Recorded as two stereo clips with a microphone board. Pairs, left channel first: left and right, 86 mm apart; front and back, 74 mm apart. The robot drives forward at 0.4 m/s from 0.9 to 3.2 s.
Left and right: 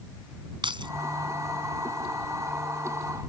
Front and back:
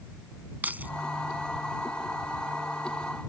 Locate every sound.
0.6 s keys jangling: 110° right